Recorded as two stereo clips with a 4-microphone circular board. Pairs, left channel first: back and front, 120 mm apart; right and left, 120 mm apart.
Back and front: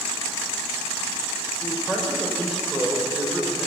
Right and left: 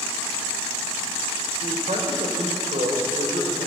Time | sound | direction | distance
1.6 | a man speaking | 80° left | 6 m